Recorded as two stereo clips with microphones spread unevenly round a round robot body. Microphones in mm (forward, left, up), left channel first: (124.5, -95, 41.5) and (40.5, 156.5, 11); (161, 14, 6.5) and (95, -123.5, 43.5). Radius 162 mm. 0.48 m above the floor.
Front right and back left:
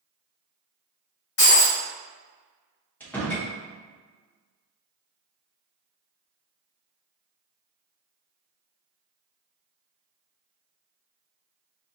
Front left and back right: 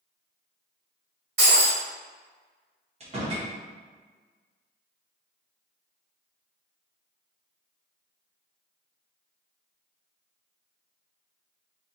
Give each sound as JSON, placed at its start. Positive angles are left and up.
{"t": 1.4, "sound": "breaking glass", "azimuth_deg": -100, "distance_m": 1.8}
{"t": 3.0, "sound": "a door slam", "azimuth_deg": -160, "distance_m": 0.6}